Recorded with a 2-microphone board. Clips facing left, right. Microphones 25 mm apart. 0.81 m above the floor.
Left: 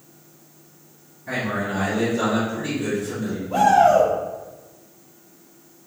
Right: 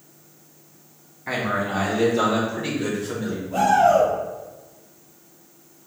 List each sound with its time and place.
1.3 s a man speaking: 65° right (ahead or behind), 1.9 m; by 3.4 s 25° right (ahead or behind), 1.0 m
3.5 s a shout: 55° left (ahead or behind), 2.0 m